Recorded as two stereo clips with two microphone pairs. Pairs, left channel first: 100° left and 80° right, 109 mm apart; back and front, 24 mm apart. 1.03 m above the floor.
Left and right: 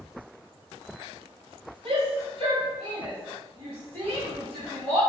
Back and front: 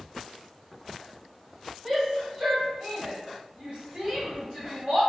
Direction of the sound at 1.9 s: 75° right.